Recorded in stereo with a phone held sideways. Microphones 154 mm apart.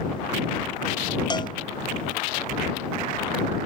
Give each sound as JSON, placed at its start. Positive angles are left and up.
{"t": 1.3, "sound": "a cowbell", "side_deg": 30}